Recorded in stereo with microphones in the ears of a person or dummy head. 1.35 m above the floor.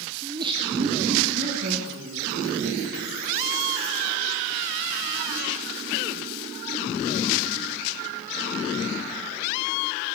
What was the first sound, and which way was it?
Laughter, 20° right (ahead or behind).